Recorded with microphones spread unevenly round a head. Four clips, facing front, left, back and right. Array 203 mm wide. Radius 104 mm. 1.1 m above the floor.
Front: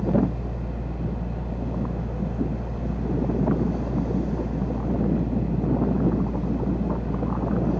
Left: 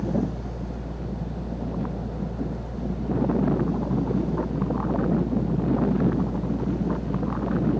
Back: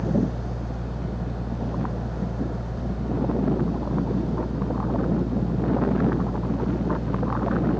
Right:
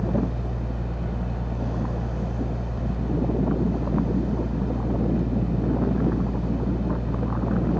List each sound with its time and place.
0.0 s a fan: 120° right